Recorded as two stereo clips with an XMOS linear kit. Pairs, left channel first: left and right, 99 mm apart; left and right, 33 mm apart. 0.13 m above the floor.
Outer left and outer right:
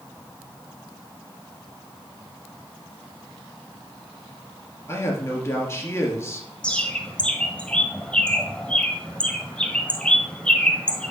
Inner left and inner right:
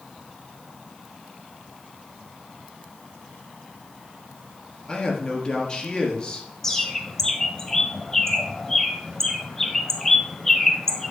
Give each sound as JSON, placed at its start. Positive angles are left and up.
{"t": 4.9, "sound": "a man speaking", "side_deg": 25, "distance_m": 2.5}
{"t": 6.6, "sound": "a bird", "side_deg": 10, "distance_m": 1.3}